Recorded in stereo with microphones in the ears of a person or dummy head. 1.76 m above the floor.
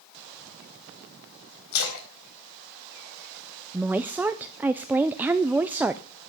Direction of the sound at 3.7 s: 10° right (ahead or behind).